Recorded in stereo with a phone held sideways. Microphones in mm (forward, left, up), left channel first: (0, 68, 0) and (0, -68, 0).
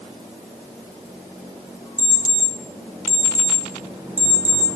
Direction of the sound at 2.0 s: 10° right (ahead or behind).